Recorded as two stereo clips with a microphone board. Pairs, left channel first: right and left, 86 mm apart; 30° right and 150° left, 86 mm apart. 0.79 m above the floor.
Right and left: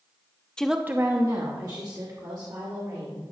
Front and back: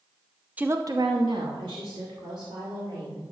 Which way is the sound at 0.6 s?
160° right.